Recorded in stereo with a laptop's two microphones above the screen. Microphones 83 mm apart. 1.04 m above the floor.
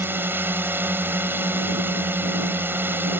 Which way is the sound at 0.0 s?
25° right (ahead or behind).